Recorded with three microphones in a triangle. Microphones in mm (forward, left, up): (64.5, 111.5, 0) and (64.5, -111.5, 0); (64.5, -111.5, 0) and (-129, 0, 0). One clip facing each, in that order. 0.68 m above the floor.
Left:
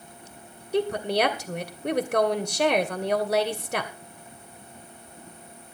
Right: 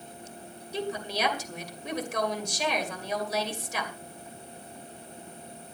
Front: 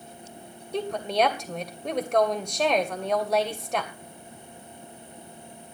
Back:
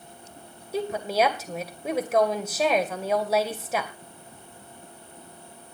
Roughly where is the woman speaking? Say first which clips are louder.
Left 8 dB, back 1 dB; ahead left.